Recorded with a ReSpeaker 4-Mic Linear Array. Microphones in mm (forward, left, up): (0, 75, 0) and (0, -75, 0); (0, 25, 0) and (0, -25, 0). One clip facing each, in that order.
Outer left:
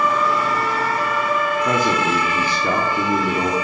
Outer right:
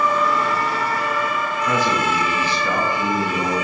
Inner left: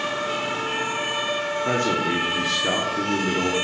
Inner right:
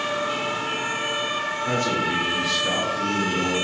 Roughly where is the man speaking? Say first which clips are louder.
Outer right 2 dB, inner left 1 dB; left.